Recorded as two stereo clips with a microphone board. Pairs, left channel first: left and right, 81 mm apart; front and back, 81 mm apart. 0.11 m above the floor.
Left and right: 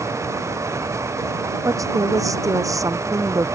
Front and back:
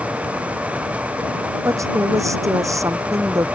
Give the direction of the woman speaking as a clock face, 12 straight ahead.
4 o'clock.